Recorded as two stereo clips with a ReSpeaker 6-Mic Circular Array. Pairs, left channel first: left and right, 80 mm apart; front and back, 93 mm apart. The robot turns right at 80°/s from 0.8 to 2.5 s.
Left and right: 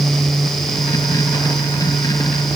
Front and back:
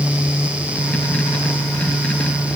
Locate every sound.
Only background noise.